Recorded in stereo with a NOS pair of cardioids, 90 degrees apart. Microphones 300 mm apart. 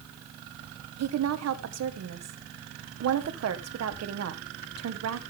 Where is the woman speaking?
60° right, 1.8 m.